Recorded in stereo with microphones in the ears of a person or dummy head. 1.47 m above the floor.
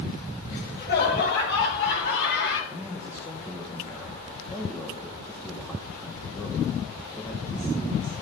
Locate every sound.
0.5 s laughter: 55° left (ahead or behind), 3 m; by 2.6 s 75° left (ahead or behind), 5 m
2.7 s a man speaking: 15° left (ahead or behind), 1.7 m